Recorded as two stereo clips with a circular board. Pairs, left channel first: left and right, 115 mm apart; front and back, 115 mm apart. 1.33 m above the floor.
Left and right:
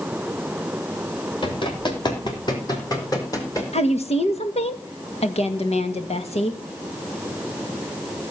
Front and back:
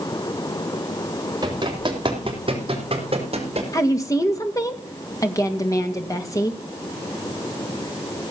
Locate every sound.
1.4 s running footsteps: 130° left, 3.5 m; by 3.6 s 150° left, 4.5 m
3.7 s a woman speaking: 60° left, 1.9 m